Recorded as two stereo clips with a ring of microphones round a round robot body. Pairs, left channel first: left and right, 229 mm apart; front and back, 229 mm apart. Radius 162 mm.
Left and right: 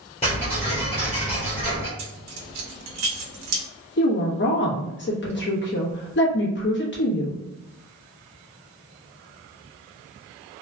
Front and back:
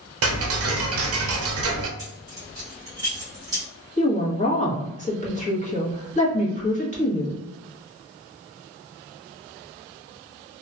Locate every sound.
0.2 s ticking: 160° left, 0.6 m
2.0 s keys jangling: 100° right, 0.7 m
4.0 s a woman speaking: 55° left, 1.2 m